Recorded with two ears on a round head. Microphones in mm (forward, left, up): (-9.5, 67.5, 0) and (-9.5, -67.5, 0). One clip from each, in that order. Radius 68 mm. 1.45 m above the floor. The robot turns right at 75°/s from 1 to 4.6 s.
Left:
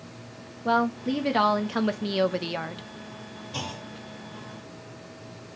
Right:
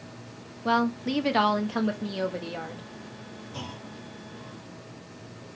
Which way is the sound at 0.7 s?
35° right.